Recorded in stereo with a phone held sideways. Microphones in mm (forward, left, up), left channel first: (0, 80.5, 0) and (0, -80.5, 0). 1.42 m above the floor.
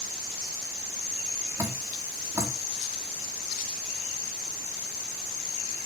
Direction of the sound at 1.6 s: 20° right (ahead or behind).